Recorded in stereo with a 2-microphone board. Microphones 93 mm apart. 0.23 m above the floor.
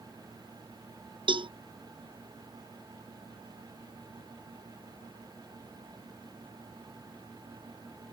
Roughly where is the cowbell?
Right.